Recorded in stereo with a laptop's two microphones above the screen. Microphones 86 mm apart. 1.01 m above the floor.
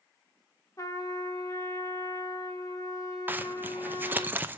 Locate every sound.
0.8 s a trumpet: 40° left (ahead or behind), 1.3 m
3.3 s a zipper: 20° right (ahead or behind), 0.7 m